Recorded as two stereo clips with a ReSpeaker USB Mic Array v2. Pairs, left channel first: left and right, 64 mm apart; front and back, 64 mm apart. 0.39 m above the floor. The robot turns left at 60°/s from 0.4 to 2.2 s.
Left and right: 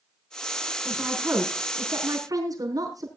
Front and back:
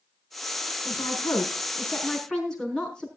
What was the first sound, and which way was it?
A woman speaking, 5° left.